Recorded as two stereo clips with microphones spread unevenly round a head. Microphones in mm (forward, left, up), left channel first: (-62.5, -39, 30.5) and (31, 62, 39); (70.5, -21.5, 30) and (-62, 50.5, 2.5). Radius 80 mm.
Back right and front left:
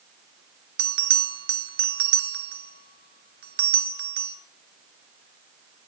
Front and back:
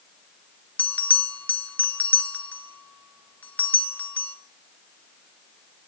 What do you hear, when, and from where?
0.8 s a bell: 55° left, 1.2 m